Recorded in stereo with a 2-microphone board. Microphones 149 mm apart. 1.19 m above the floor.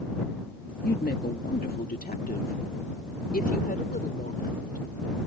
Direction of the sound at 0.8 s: 85° left.